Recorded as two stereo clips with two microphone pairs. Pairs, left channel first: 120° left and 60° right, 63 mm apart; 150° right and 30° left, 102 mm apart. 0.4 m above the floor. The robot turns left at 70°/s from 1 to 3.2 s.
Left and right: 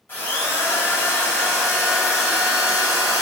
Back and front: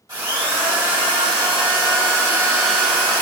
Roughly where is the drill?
Left.